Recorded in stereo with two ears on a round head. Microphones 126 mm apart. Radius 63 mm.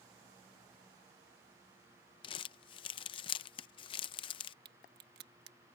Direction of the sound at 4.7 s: 75° right (ahead or behind).